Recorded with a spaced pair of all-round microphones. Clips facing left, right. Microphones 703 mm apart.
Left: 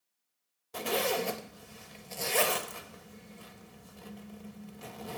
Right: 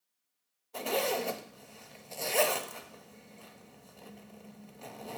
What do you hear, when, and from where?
0.7 s a zipper: 50° left (ahead or behind), 0.7 m